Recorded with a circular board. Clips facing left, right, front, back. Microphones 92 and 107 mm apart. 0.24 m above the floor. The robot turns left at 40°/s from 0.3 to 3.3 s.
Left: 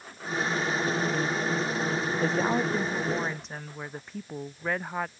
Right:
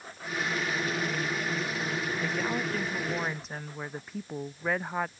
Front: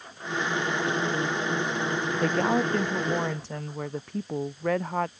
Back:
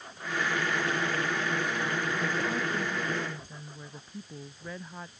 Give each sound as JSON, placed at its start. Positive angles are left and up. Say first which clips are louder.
{"t": 2.2, "sound": "a woman speaking", "louder": "left 7 dB, front 7 dB", "azimuth_deg": 40}